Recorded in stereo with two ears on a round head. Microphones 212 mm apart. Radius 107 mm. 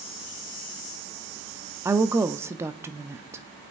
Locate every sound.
1.9 s a woman speaking: 10° right (ahead or behind), 0.7 m